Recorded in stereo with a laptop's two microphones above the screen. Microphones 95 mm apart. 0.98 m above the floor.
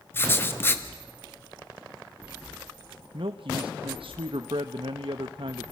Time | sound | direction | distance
0.1 | writing | 25° left (ahead or behind) | 1.1 m
3.1 | a man speaking | 70° right (ahead or behind) | 0.9 m